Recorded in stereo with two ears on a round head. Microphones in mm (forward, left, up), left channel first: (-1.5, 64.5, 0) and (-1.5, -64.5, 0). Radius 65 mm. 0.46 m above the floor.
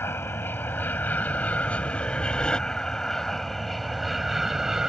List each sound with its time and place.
0.0 s an aircraft: 15° left (ahead or behind); by 4.9 s 5° right (ahead or behind)